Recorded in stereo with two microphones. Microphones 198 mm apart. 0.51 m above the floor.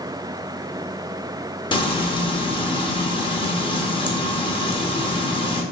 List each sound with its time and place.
1.7 s frying: 25° left (ahead or behind), 0.5 m